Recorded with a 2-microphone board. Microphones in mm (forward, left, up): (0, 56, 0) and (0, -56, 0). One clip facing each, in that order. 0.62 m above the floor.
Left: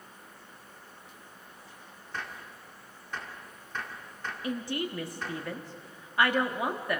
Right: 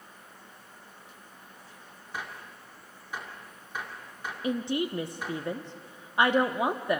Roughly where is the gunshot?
Centre.